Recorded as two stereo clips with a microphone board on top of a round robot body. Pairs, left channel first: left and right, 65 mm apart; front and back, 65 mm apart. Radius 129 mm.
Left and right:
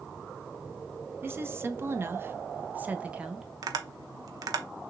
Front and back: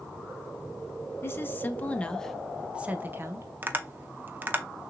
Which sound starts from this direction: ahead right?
A woman speaking, at 1.2 s.